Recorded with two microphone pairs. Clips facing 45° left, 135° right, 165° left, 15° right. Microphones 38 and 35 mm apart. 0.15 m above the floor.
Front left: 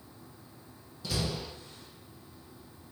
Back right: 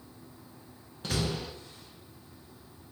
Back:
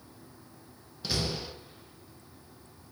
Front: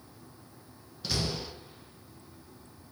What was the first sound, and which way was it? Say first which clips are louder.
A door slam: back right 2 dB, even; 110° right.